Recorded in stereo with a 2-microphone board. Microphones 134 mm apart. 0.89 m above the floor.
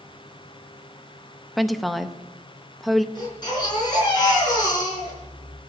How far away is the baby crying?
About 4.5 m.